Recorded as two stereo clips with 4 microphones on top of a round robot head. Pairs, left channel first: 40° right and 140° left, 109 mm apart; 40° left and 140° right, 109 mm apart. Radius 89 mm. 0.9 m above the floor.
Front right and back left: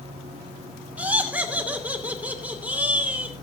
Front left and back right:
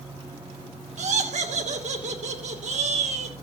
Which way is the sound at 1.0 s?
145° right.